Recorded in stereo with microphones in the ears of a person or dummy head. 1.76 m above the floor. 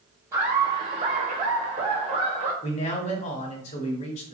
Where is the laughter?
15° right (ahead or behind), 0.7 m; by 2.5 s 35° right (ahead or behind), 1.4 m.